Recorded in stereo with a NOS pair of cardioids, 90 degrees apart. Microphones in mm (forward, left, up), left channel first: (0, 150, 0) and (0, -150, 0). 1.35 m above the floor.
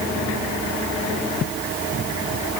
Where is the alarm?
No alarm in this recording.